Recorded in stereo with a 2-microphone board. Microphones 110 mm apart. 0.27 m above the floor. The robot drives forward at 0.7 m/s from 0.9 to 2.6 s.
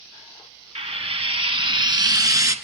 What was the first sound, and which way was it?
Frying, 70° right (ahead or behind).